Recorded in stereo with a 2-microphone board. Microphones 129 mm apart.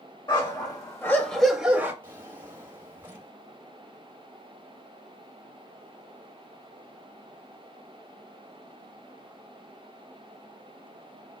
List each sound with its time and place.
0.3 s a dog barking: 40° left (ahead or behind), 1.9 m; by 1.9 s 20° right (ahead or behind), 1.3 m
2.0 s a drawer: 20° right (ahead or behind), 3.5 m